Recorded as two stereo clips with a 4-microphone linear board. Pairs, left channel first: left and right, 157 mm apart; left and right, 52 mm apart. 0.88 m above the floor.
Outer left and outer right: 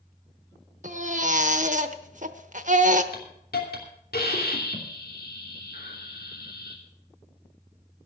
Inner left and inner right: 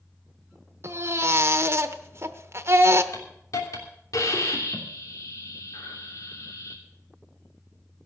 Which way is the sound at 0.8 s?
50° right (ahead or behind).